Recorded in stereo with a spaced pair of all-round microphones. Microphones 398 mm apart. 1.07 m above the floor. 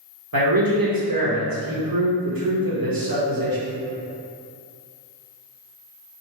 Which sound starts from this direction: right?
A man speaking, at 0.3 s.